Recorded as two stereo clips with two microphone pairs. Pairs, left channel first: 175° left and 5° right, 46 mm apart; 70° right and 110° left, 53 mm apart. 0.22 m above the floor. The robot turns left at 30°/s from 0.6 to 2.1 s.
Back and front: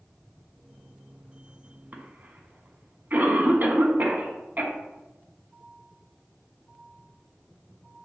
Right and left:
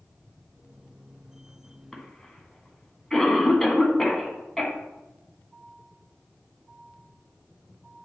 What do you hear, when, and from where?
1.9 s a cough: 15° left, 1.5 m; by 4.7 s 10° left, 1.5 m